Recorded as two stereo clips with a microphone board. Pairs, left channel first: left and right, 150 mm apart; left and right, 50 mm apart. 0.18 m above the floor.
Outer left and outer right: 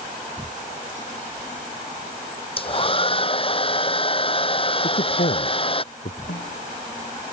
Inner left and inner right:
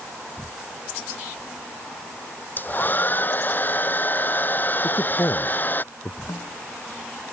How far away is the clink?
No clink in this recording.